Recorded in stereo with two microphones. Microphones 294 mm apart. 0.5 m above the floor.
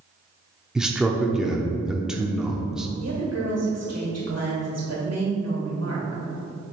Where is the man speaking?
Centre (ahead or behind), 0.7 m.